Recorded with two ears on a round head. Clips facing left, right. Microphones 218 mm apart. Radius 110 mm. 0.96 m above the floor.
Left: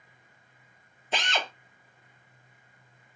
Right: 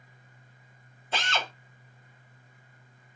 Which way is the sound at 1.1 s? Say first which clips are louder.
Left 1 dB; 15° left (ahead or behind).